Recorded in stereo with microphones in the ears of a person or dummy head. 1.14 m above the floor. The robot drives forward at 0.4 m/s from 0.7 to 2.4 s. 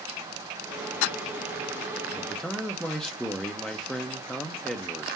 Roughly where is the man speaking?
Centre.